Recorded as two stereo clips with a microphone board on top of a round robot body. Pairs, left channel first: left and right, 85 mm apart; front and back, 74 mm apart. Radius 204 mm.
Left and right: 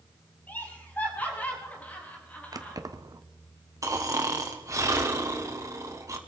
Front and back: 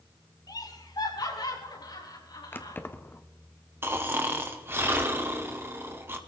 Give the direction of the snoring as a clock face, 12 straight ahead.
4 o'clock.